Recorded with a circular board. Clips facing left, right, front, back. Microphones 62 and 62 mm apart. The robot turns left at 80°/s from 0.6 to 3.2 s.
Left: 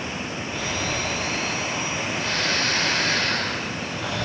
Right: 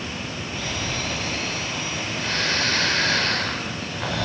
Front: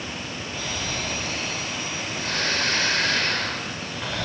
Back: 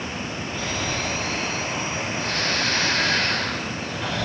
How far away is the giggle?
I don't hear a giggle.